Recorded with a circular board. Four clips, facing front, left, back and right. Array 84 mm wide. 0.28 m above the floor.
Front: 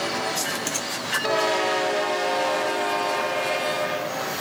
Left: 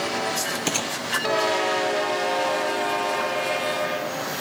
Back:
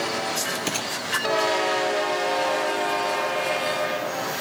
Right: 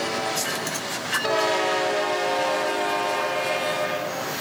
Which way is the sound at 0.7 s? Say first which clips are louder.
Left 3 dB, back 1 dB; 115° left.